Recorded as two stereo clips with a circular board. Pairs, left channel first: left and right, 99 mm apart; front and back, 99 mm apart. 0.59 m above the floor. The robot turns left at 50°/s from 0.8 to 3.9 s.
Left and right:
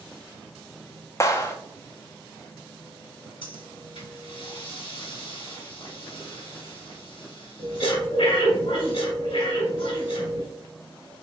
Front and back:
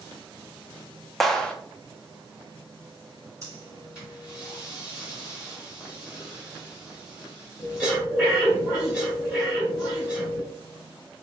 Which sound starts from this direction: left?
A clap, at 1.2 s.